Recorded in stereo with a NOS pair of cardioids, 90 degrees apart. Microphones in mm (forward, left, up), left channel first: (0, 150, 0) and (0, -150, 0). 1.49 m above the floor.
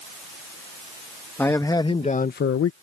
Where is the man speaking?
5° left; by 2.7 s 60° left.